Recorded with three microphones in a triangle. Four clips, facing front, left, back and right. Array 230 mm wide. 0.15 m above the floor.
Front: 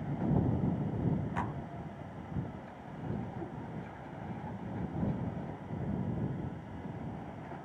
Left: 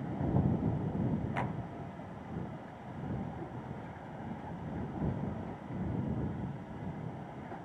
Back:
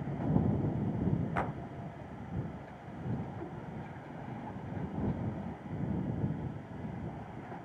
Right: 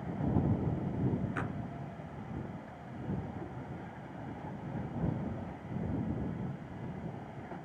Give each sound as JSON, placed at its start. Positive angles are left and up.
{"t": 1.4, "sound": "a clap", "azimuth_deg": 165}